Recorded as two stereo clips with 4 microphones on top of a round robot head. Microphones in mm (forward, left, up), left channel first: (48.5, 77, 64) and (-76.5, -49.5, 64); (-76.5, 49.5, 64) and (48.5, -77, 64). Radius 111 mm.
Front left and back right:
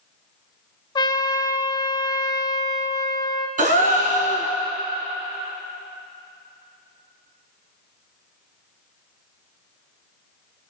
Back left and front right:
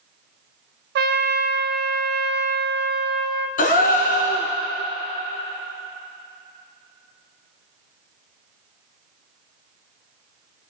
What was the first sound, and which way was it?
A trumpet, 20° right.